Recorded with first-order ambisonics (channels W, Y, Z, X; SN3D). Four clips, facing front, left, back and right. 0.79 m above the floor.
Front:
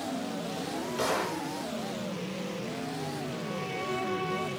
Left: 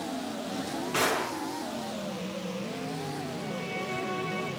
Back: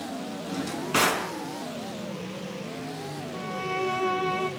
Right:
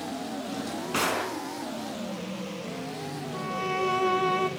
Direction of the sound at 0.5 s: 170° right.